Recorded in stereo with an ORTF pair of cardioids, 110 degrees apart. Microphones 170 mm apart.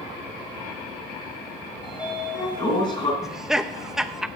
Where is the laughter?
Straight ahead, 0.7 m.